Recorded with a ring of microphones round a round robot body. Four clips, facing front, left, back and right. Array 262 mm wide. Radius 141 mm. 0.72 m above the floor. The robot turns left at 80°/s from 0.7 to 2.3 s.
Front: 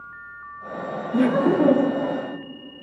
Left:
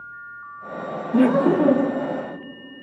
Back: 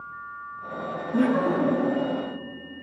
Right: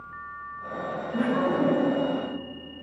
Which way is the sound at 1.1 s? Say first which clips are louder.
Left 8 dB, front 4 dB; 85° left.